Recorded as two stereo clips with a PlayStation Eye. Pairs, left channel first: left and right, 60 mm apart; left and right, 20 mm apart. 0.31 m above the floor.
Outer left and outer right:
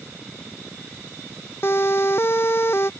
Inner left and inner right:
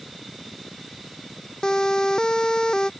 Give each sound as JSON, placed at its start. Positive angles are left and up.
{"t": 1.6, "sound": "a siren", "side_deg": 45}